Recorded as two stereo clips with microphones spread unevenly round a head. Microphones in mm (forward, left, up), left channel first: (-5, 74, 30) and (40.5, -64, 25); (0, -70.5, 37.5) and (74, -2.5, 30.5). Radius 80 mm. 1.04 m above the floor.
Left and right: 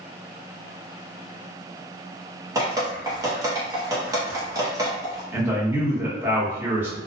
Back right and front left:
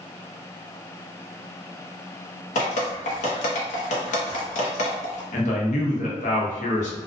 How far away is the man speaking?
About 0.7 m.